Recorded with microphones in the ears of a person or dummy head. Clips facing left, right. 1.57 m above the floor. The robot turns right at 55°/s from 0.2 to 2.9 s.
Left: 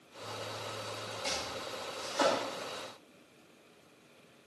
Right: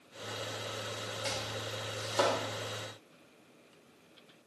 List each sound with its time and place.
1.2 s chopping: 20° right (ahead or behind), 4.5 m; by 2.3 s 80° right, 4.5 m